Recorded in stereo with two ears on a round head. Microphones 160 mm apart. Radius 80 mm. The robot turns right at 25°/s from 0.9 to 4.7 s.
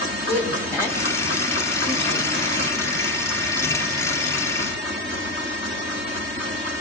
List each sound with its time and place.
0.3 s a woman speaking: 15° left (ahead or behind), 2 m; by 2.7 s 55° left (ahead or behind), 2 m